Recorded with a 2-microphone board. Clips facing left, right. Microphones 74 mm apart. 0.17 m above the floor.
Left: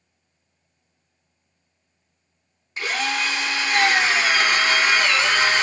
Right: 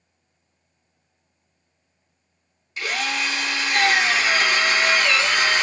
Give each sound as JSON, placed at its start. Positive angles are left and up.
{"t": 2.8, "sound": "a drill", "side_deg": 30, "distance_m": 1.0}